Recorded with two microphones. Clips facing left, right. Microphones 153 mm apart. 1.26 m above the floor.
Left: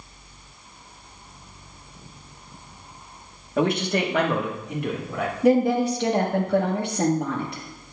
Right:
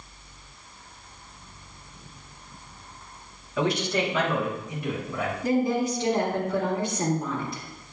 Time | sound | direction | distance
3.6 | a man speaking | 55° left (ahead or behind) | 1.1 m
5.4 | a woman speaking | 75° left (ahead or behind) | 1.3 m